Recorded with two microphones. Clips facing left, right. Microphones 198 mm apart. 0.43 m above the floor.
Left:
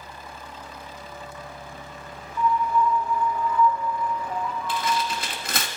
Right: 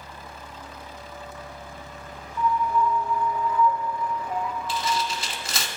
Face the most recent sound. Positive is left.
turn(degrees=60)  # may be behind; listen again after turning